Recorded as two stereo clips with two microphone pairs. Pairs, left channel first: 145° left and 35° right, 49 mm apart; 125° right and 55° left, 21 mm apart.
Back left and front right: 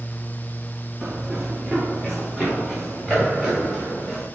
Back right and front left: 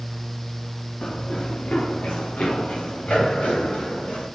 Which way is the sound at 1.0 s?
115° right.